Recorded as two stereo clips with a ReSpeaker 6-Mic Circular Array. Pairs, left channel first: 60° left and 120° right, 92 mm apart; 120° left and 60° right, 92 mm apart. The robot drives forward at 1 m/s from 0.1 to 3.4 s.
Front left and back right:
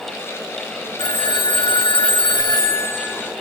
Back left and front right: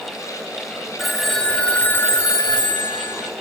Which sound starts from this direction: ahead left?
A phone ringing, at 1.0 s.